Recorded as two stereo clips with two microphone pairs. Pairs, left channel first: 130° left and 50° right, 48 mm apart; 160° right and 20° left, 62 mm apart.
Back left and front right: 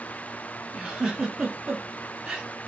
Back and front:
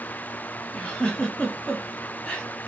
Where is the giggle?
110° right, 0.9 m.